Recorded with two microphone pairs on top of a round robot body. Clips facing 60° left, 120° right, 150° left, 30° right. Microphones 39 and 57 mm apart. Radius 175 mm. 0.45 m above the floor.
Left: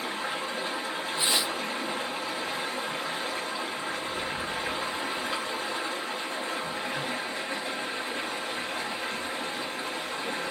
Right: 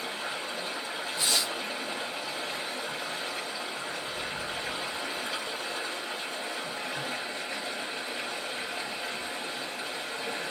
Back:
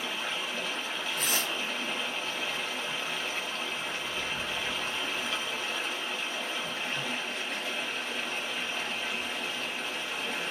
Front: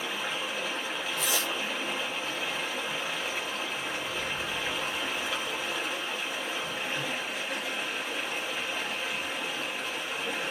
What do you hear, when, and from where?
0.0 s running water: 30° left, 1.3 m
1.2 s tearing paper: 125° left, 0.6 m